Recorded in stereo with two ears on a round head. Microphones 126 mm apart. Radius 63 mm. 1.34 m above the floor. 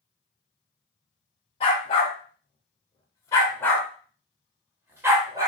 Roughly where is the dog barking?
Left.